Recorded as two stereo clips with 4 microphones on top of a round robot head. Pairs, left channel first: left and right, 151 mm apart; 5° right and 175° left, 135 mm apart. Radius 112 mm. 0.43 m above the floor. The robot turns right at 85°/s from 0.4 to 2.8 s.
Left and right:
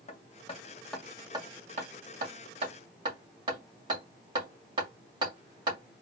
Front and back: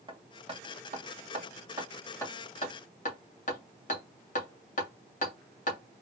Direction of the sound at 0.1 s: 130° left.